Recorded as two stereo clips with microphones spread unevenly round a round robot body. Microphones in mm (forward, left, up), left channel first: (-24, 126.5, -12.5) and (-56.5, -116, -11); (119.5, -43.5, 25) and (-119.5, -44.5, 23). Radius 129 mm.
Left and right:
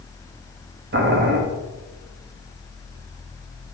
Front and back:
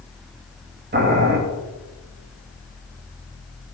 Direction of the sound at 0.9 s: 135° right.